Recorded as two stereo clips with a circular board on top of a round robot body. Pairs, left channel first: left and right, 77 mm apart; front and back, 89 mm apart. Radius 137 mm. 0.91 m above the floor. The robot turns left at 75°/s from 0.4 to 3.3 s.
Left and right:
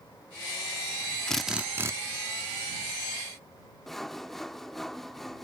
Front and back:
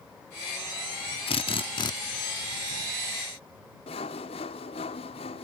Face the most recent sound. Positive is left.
turn(degrees=5)